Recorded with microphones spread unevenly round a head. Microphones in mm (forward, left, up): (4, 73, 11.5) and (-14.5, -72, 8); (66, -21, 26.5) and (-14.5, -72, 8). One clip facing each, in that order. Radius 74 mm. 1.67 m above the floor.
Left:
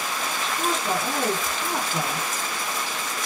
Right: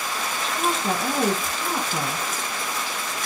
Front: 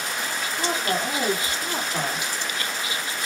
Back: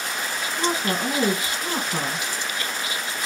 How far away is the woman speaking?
About 1.5 m.